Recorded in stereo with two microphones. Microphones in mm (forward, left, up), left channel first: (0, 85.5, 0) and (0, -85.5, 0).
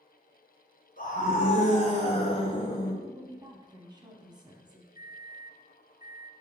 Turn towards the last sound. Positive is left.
turn(degrees=-20)  # may be behind; listen again after turning